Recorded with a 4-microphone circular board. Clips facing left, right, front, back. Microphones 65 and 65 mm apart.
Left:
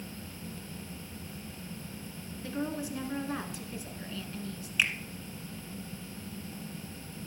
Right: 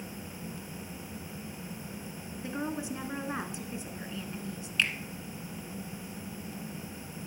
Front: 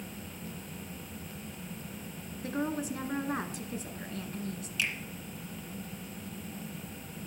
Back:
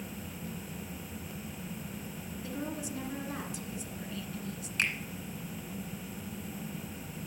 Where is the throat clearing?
I don't hear throat clearing.